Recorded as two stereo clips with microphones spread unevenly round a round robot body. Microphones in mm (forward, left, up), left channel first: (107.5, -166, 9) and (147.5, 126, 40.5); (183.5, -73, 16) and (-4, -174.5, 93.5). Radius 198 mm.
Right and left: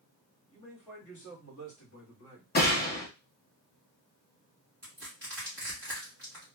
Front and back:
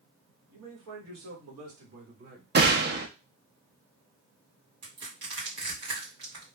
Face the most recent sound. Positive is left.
turn(degrees=165)